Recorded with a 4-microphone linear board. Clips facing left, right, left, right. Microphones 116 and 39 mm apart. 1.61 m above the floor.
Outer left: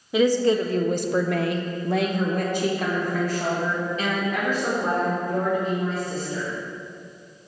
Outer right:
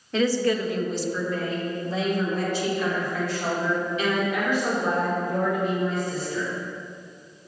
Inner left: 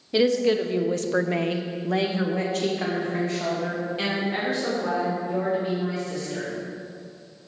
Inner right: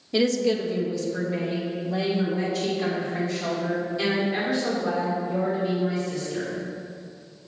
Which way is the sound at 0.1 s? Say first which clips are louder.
Outer left 3 dB, inner left 2 dB; 10° left (ahead or behind).